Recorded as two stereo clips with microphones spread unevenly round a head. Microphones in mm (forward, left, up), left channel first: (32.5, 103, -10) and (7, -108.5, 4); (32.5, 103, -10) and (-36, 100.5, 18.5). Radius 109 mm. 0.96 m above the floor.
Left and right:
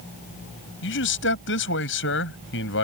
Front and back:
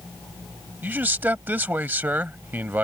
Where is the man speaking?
120° left.